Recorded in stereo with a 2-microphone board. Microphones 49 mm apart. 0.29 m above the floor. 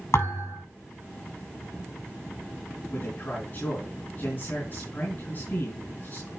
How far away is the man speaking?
About 3.5 m.